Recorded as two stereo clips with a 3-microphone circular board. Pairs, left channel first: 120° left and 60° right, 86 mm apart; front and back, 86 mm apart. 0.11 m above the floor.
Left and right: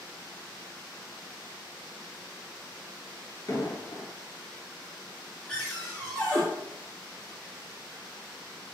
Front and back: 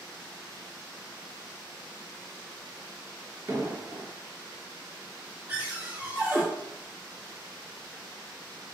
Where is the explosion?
135° left, 0.7 m.